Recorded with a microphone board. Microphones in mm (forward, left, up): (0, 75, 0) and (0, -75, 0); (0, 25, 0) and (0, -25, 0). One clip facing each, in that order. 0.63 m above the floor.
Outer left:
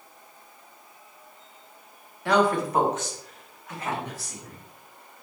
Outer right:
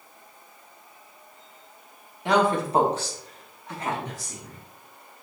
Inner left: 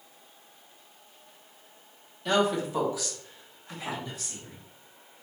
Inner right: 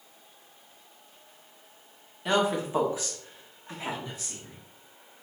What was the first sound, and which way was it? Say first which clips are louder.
A woman speaking: even, even; 20° right (ahead or behind).